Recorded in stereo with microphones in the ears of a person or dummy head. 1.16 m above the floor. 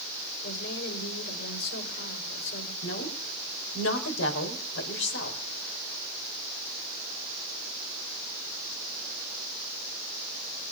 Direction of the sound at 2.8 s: 65° left (ahead or behind).